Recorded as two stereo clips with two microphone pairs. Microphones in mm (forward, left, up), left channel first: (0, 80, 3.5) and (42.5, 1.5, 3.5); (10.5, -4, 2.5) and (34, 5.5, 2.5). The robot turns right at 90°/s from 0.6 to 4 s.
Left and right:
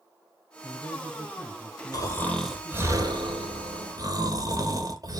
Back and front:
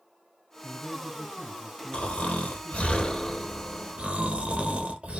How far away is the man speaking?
About 1.8 m.